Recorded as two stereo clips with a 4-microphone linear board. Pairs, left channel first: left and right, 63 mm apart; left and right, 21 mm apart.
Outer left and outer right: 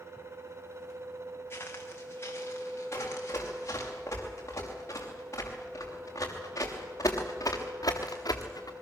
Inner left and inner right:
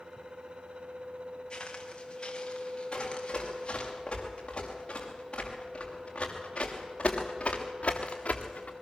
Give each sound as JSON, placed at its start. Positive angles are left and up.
{"t": 1.5, "sound": "footsteps", "side_deg": 35, "distance_m": 4.5}
{"t": 2.9, "sound": "running footsteps", "side_deg": 40, "distance_m": 9.0}